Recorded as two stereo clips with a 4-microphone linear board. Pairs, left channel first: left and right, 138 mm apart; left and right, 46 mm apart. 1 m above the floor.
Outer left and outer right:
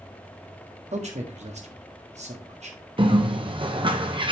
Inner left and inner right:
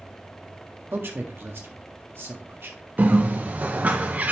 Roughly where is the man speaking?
Right.